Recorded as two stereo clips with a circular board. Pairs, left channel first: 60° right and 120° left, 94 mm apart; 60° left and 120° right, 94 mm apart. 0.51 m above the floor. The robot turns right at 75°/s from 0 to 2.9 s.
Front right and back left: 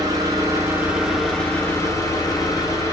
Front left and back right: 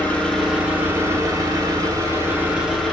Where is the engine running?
120° left, 0.9 m; by 2.9 s 25° right, 0.9 m.